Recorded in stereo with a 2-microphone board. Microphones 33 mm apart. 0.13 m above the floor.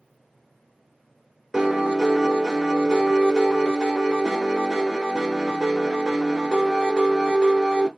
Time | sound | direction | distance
1.5 | a piano | 15° right (ahead or behind) | 1.0 m